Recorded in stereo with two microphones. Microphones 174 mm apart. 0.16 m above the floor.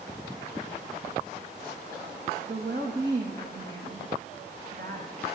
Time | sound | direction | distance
2.5 | a woman speaking | 80° right | 7 m